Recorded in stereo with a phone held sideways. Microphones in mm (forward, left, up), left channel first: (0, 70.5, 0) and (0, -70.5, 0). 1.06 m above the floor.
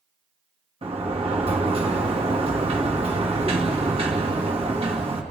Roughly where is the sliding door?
Right.